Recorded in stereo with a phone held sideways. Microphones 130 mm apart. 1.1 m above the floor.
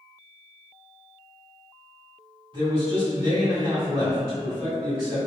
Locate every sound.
2.5 s a man speaking: 40° right (ahead or behind), 1.6 m